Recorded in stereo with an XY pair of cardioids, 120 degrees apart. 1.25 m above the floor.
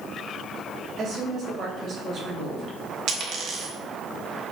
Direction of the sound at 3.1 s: 65° right.